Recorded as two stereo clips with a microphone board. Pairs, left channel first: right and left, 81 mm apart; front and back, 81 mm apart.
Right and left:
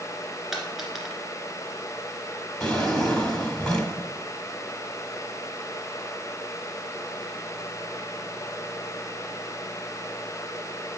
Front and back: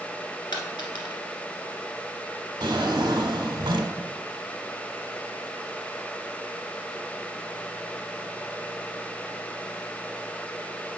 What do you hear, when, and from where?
0.5 s a dropped coin: 5° left, 1.7 m
2.6 s a drawer: 170° right, 1.2 m